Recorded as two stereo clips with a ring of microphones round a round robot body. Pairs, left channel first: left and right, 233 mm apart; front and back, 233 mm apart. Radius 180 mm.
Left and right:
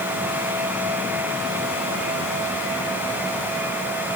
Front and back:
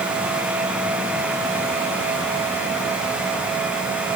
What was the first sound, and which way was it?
Only background noise.